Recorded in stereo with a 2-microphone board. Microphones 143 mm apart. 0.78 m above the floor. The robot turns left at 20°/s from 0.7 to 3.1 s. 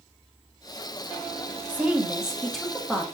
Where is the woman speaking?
15° right (ahead or behind), 1.2 m; by 3.0 s 5° left (ahead or behind), 1.2 m.